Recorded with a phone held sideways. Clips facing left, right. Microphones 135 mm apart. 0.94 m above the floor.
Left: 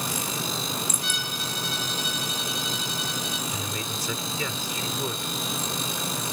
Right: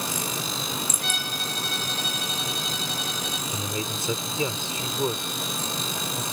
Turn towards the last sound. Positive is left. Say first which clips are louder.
# right 2 dB
turn(degrees=-25)  # may be behind; listen again after turning